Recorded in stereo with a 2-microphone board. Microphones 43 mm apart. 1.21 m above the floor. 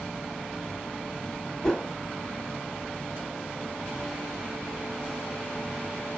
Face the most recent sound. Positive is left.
turn(degrees=20)  # may be behind; listen again after turning